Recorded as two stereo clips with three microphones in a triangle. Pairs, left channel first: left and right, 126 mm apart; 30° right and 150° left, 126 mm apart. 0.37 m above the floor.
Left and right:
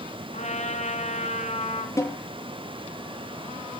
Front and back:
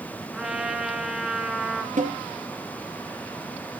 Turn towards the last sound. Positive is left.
turn(degrees=155)